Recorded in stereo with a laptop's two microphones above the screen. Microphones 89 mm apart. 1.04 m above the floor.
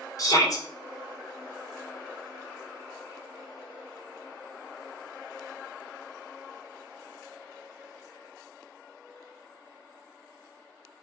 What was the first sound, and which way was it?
A shout, 45° left (ahead or behind).